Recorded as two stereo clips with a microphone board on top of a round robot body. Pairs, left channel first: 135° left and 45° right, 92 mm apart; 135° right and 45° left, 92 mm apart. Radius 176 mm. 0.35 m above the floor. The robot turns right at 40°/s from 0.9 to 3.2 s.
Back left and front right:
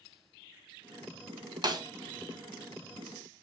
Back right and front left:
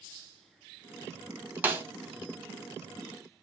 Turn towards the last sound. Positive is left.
turn(degrees=40)